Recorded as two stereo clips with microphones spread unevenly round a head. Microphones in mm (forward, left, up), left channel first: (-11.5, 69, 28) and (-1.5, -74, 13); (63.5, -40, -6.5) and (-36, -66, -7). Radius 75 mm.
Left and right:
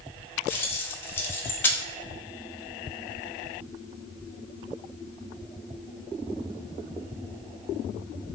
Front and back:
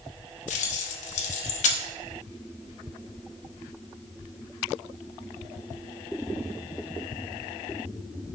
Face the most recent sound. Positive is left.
turn(degrees=15)